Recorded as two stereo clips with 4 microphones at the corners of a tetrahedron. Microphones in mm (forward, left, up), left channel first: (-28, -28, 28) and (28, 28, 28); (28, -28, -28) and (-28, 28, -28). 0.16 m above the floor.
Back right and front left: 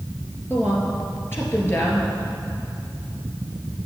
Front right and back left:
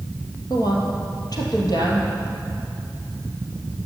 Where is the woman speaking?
75° right, 2.5 m.